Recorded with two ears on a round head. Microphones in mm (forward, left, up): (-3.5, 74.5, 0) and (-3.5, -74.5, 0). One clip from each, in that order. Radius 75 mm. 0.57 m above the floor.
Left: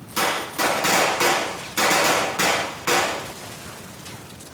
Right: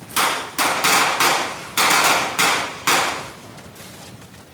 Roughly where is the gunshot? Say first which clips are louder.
Right 3 dB; right.